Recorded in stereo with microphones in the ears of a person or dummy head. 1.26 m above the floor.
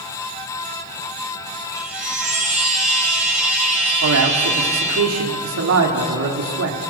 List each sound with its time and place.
1.7 s a chime: 5° right (ahead or behind), 5 m
4.0 s a man speaking: 80° right, 3 m